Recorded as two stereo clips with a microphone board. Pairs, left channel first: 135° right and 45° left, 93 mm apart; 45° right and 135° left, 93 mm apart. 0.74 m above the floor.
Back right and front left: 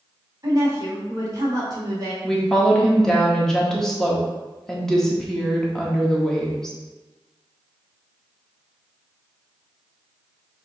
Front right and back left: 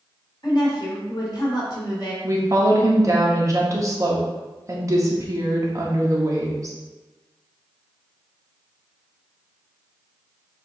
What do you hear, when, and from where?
0.4 s a woman speaking: 5° right, 1.7 m
2.2 s a woman speaking: 145° left, 1.0 m